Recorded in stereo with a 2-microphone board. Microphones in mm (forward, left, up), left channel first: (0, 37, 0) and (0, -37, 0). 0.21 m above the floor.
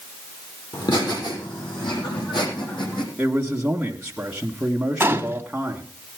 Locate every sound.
0.7 s laughter: 70° left (ahead or behind), 6.5 m; by 3.1 s 80° left, 7.5 m
3.2 s a man speaking: 10° right (ahead or behind), 1.5 m
5.0 s a gunshot: 30° right (ahead or behind), 1.1 m